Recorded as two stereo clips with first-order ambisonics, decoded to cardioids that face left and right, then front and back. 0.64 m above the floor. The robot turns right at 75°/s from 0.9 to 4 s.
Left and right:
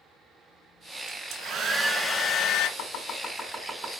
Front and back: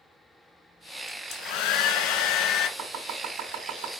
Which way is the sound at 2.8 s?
120° left.